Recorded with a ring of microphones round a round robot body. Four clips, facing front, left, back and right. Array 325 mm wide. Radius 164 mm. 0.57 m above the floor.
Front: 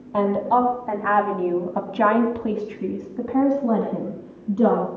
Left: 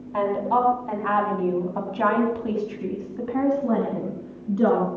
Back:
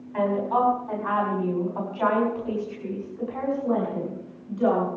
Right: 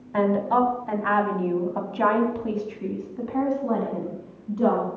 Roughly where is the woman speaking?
Ahead right.